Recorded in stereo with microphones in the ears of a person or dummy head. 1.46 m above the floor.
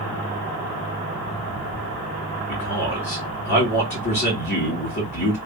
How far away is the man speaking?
About 1.8 m.